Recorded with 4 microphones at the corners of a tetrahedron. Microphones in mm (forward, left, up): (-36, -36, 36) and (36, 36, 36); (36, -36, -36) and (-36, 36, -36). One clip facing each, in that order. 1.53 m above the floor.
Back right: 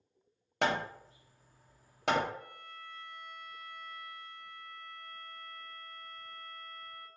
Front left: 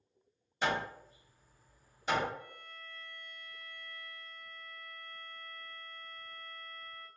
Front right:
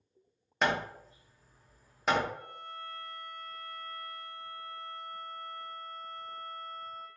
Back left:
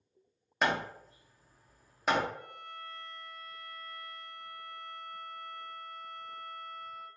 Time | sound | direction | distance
0.6 | hammering | 135° right | 0.8 m
2.3 | a violin | 100° right | 1.0 m